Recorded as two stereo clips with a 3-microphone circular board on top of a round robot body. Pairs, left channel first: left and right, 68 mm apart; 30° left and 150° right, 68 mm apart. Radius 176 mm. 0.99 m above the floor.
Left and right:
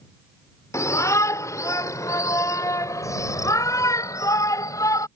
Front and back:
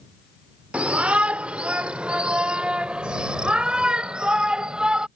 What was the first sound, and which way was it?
A shout, 135° left.